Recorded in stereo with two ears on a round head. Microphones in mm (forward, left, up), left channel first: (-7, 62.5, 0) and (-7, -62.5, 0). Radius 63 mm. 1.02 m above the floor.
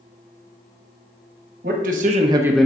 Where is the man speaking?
70° right (ahead or behind), 1.5 m; by 2.7 s 10° left (ahead or behind), 0.8 m.